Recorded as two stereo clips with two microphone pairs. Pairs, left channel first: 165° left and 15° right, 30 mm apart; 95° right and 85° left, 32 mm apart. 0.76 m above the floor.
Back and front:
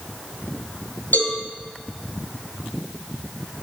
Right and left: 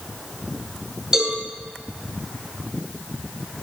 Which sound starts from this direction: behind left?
A cowbell, at 1.1 s.